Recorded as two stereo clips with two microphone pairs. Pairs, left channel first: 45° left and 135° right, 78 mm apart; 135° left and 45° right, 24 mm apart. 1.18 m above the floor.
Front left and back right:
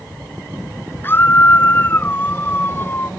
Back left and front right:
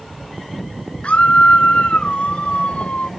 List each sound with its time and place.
1.0 s a scream: 105° left